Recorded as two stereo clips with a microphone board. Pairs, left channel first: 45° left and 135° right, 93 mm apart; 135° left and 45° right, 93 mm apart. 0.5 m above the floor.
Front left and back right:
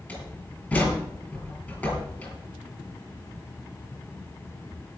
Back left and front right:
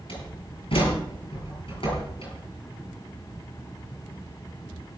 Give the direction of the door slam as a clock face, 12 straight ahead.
8 o'clock.